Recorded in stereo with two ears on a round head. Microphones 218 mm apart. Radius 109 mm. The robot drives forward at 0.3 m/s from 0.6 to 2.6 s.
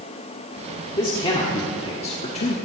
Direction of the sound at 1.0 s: 20° left (ahead or behind).